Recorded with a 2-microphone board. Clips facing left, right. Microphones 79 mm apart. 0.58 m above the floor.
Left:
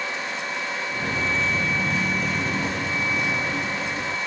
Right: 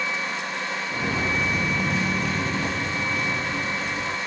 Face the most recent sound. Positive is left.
turn(degrees=10)  # may be behind; listen again after turning